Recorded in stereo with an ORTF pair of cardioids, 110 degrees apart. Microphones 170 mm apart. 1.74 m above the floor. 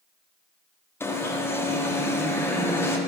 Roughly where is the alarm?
Ahead.